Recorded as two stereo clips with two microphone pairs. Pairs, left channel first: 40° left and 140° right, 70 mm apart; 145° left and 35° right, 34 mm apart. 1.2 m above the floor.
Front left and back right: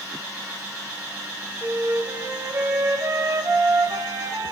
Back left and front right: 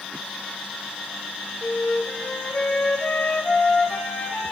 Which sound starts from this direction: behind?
A flute, at 1.6 s.